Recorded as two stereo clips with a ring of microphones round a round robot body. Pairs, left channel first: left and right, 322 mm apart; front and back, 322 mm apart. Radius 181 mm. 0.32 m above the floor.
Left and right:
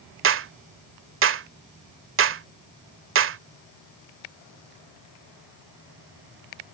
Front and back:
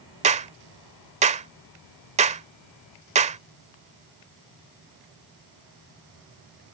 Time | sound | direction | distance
0.2 | a clap | 120° right | ?